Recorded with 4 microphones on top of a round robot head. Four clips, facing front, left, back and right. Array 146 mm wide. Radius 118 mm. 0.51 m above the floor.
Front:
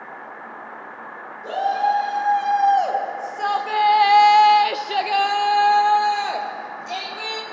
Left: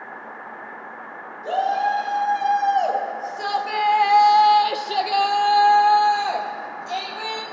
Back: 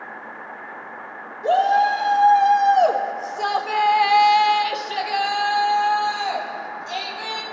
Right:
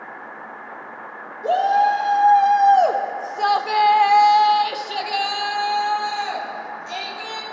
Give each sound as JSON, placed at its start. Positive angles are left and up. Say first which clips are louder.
{"t": 1.4, "sound": "a shout", "louder": "right 4 dB, back 4 dB", "azimuth_deg": -125, "distance_m": 2.5}